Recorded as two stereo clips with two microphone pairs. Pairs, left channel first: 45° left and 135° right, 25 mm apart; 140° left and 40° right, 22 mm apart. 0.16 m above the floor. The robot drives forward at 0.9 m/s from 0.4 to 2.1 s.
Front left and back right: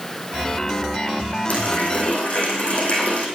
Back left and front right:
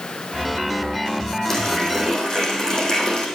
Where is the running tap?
70° left, 4.5 m; by 3.3 s 75° left, 4 m.